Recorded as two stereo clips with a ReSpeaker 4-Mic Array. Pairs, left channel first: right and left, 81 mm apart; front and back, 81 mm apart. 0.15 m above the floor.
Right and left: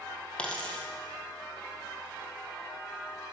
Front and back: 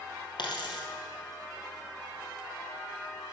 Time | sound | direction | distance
0.4 | a dropped coin | 15° right | 2 m